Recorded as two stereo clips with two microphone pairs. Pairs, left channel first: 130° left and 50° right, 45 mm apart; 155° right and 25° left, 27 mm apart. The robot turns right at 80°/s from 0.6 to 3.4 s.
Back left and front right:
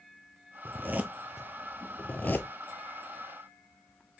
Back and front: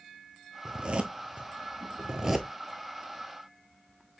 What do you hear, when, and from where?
0.7 s a zipper: 35° right, 0.7 m; by 2.5 s 115° left, 0.7 m